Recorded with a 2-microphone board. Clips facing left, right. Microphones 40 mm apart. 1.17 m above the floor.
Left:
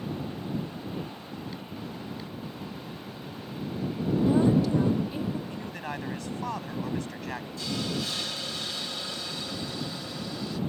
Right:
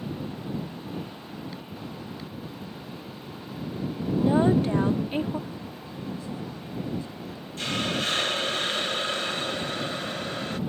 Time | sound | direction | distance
4.2 | a woman speaking | 30° right (ahead or behind) | ?
5.5 | a man speaking | 65° left (ahead or behind) | ?
7.6 | a hiss | 50° right (ahead or behind) | ?